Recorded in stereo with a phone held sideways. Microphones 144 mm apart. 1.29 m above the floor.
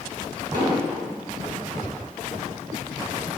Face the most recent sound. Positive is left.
turn(degrees=-30)  # may be behind; listen again after turning